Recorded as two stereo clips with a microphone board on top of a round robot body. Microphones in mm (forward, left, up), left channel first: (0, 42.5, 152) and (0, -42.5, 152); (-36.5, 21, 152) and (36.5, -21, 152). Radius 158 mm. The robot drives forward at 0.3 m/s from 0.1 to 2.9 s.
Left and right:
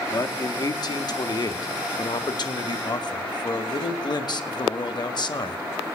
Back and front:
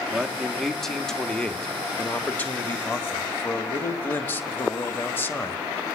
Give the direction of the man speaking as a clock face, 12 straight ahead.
10 o'clock.